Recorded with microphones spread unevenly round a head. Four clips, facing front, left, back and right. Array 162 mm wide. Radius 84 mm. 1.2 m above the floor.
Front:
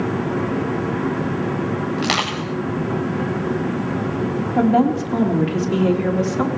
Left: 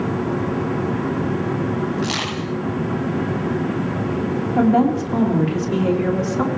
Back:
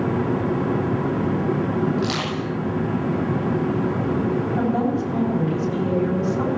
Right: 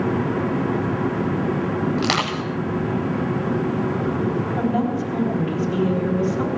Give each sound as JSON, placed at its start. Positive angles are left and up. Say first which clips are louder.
{"t": 2.0, "sound": "crushing", "louder": "right 1 dB, front 2 dB", "azimuth_deg": -45, "distance_m": 8.0}
{"t": 4.6, "sound": "a woman speaking", "louder": "left 10 dB, front 9 dB", "azimuth_deg": 35, "distance_m": 3.5}